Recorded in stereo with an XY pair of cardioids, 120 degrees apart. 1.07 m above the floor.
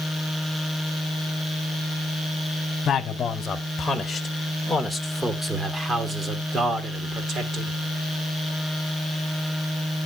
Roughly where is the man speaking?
Ahead left.